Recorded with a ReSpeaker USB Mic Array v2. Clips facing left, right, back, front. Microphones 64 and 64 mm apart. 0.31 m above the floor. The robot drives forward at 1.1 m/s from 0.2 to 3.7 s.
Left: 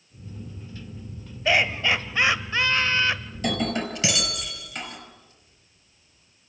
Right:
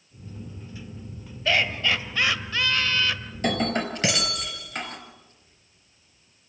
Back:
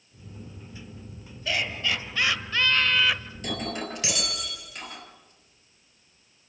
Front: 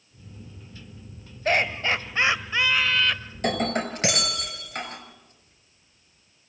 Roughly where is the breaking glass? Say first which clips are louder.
Right 1 dB, front 7 dB; ahead right.